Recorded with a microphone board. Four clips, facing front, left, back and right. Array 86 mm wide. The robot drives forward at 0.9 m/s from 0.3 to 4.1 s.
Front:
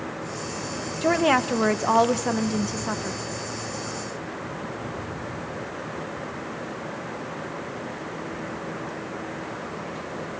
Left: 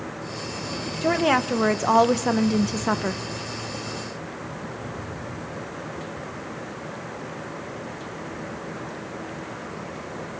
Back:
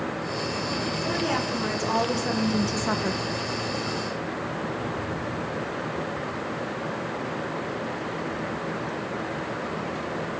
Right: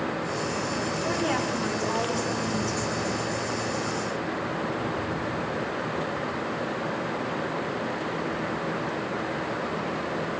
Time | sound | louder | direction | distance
1.0 | a woman speaking | left 9 dB, front 9 dB | 35° left | 1.9 m